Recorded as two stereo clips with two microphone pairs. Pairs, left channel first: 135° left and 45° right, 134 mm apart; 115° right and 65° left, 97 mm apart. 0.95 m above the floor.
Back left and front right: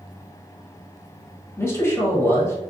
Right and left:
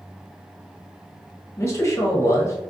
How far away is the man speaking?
About 0.7 m.